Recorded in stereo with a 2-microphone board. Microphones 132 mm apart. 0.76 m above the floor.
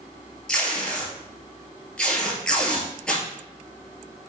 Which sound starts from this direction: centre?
Tape being pulled, at 0.5 s.